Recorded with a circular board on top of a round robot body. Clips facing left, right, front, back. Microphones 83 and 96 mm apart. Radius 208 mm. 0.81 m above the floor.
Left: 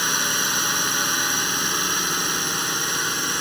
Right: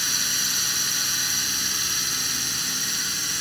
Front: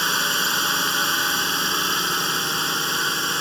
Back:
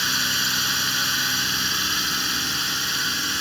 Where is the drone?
50° left.